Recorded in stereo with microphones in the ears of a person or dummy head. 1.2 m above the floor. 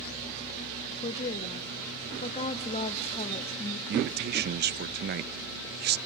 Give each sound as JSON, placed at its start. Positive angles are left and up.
{"t": 1.0, "sound": "a woman speaking", "side_deg": 30, "distance_m": 0.8}
{"t": 3.9, "sound": "a man speaking", "side_deg": -45, "distance_m": 0.5}